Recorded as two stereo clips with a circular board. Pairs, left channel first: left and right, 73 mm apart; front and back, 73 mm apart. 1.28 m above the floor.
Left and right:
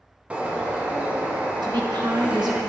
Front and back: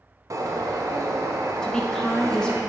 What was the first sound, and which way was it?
A bird, 160° right.